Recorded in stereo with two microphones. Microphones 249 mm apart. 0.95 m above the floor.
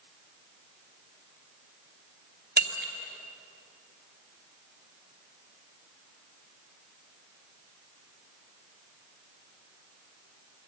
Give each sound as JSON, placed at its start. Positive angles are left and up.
{"t": 2.6, "sound": "breaking glass", "side_deg": -40, "distance_m": 2.5}